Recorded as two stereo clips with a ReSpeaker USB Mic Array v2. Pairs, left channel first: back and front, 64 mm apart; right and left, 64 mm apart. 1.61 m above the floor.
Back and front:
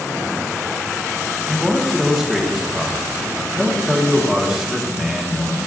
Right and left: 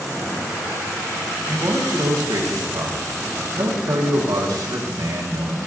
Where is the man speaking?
80° left, 1.6 m.